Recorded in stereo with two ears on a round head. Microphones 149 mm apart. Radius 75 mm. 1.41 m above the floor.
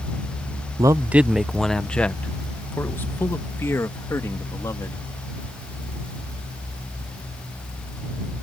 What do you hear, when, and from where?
0.8 s a man speaking: 20° right (ahead or behind); by 5.1 s 20° left (ahead or behind)